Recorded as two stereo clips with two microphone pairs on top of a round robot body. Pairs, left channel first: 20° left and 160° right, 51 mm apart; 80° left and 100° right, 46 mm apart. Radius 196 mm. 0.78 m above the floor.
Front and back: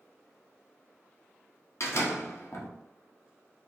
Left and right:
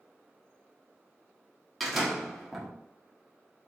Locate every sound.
1.8 s a door slam: 10° right, 1.1 m